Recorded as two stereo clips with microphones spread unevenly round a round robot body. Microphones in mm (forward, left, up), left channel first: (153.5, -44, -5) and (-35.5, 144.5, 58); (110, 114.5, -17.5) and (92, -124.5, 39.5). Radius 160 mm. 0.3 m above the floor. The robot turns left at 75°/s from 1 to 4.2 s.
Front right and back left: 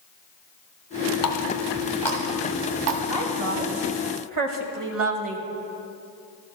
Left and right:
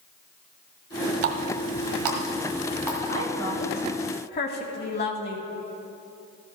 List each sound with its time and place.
1.2 s a running tap: 60° right, 1.5 m; by 3.0 s 170° left, 1.5 m
3.1 s a woman speaking: 135° right, 1.5 m; by 5.5 s 140° left, 1.5 m